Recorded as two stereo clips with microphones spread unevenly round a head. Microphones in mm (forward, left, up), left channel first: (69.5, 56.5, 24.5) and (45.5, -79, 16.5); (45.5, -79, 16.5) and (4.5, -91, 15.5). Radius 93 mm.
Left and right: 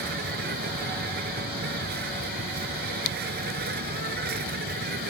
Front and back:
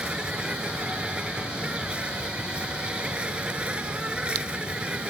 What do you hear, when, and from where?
0.0 s an insect: 100° right